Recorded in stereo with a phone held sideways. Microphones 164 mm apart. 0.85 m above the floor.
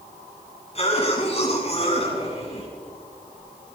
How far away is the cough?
About 7.5 m.